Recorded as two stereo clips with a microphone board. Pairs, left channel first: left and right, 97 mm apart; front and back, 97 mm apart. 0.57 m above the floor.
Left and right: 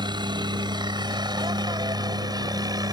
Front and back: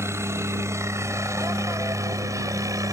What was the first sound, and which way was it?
A helicopter, 120° right.